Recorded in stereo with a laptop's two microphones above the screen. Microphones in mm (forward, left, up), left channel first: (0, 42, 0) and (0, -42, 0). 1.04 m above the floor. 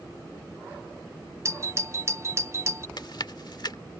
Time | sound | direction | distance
1.4 | a doorbell | 35° right (ahead or behind) | ?
3.0 | chewing | 60° left (ahead or behind) | ?